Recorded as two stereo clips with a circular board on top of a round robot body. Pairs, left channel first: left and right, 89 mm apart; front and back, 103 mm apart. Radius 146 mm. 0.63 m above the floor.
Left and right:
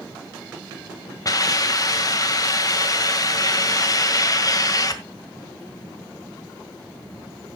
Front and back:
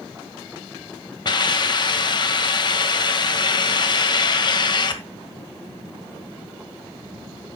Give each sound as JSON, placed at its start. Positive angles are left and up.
{"t": 1.2, "sound": "a hiss", "azimuth_deg": 45, "distance_m": 1.9}